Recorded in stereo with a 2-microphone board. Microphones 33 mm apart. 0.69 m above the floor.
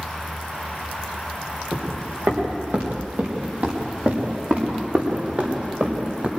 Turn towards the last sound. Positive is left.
turn(degrees=-45)  # may be behind; listen again after turning